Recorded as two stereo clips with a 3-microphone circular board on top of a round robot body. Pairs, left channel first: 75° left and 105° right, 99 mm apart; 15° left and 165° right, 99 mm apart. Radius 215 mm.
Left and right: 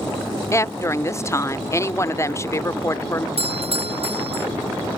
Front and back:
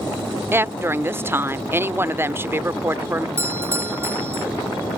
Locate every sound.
0.5 s a woman speaking: 130° left
3.4 s a doorbell: 100° right